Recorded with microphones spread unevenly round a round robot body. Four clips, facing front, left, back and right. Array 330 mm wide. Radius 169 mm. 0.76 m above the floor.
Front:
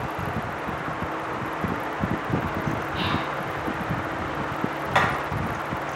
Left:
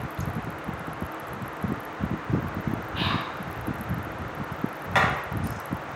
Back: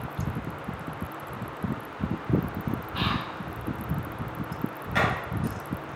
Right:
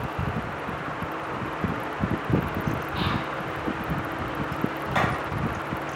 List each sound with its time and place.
2.9 s whispering: 110° right, 4 m
5.0 s hammering: 25° left, 4 m